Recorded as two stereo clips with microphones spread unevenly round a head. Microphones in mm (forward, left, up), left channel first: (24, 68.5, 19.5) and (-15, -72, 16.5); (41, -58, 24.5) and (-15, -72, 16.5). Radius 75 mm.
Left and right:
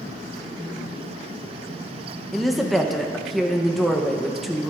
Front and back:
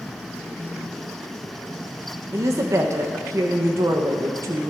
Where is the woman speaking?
165° left, 0.6 m.